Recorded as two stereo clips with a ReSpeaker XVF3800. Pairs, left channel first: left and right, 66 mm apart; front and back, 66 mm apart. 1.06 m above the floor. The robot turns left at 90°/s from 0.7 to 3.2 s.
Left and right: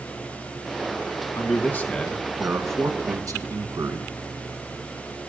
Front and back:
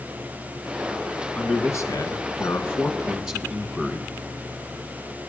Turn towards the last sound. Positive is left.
turn(degrees=-100)